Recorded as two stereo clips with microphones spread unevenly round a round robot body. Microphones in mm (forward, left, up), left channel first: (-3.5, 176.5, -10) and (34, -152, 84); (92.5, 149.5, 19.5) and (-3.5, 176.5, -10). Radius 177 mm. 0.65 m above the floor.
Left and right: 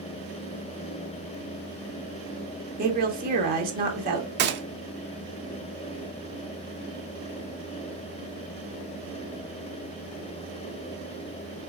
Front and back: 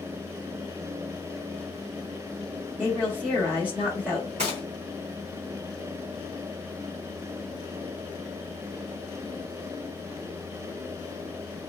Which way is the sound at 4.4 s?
145° right.